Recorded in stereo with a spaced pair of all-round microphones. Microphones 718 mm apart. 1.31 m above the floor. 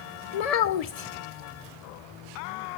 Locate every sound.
0.3 s a child speaking: 60° left (ahead or behind), 0.6 m